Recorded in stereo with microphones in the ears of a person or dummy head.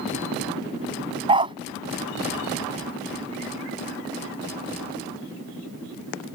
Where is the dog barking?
30° right (ahead or behind).